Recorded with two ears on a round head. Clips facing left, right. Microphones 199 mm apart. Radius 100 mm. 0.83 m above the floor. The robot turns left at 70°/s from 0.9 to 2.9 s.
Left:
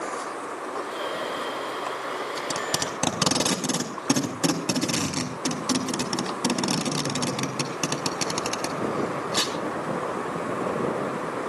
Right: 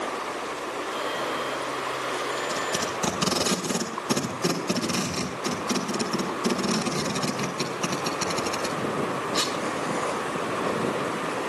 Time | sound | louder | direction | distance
2.4 | tape being pulled | right 1 dB | 70° left (ahead or behind) | 4 m